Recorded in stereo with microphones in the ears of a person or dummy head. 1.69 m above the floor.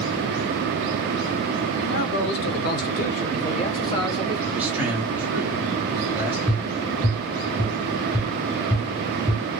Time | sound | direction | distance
1.8 | a man speaking | 70° left (ahead or behind) | 1.3 m
4.5 | a man speaking | 10° right (ahead or behind) | 1.3 m
6.5 | tapping | 10° left (ahead or behind) | 0.7 m